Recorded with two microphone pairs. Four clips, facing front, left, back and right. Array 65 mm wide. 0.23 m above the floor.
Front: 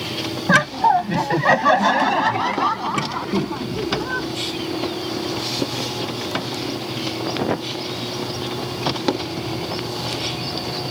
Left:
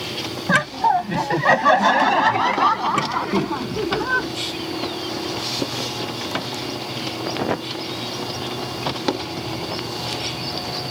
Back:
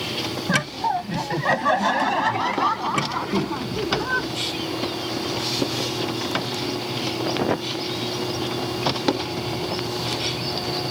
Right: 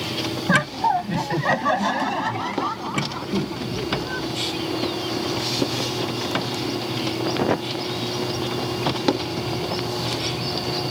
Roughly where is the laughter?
Ahead.